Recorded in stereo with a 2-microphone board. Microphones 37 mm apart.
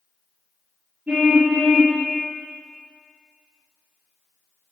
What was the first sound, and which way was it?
A car horn, 45° right (ahead or behind).